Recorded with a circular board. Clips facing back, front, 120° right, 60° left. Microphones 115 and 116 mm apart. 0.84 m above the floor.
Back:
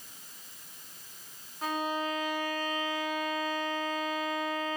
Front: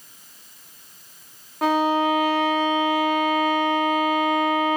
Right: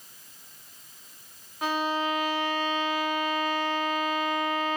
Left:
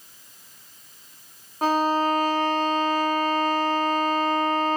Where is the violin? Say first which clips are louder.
Front 13 dB, left 6 dB; 10° left, 0.9 m.